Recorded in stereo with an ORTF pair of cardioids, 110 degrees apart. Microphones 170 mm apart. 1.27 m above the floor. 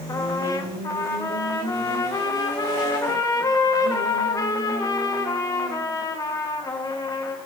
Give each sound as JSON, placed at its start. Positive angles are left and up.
{"t": 0.1, "sound": "a trumpet", "azimuth_deg": 20, "distance_m": 1.2}